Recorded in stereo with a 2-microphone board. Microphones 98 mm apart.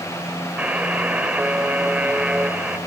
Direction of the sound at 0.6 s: 15° right (ahead or behind).